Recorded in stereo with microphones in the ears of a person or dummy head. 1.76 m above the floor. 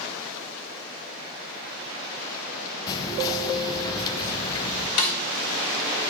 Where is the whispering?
25° left (ahead or behind), 0.9 m.